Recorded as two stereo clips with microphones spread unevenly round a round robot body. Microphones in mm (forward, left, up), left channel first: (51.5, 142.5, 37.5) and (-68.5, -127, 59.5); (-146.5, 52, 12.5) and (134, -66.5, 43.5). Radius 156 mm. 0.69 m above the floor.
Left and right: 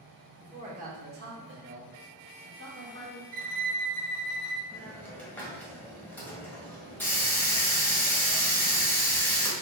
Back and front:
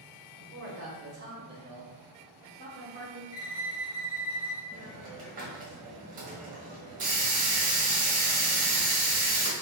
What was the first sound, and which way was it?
A man speaking, 45° right.